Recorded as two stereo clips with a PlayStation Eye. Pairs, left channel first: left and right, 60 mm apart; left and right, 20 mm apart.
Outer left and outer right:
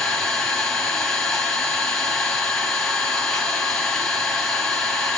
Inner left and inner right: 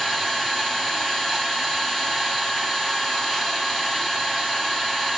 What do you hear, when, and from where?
0.0 s an engine running: 10° left (ahead or behind), 4.5 m